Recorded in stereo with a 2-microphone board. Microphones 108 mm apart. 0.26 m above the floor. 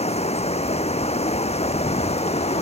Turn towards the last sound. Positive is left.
turn(degrees=75)  # may be behind; listen again after turning